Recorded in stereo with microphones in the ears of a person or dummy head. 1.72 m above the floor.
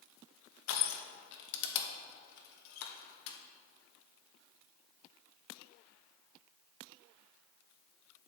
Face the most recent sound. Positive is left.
turn(degrees=65)  # may be behind; listen again after turning